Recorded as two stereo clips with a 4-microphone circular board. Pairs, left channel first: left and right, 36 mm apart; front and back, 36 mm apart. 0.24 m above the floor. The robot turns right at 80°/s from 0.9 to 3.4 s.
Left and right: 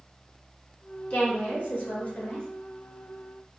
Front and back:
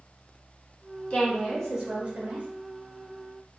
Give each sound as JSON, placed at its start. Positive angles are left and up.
{"t": 1.1, "sound": "a woman speaking", "azimuth_deg": 55, "distance_m": 1.8}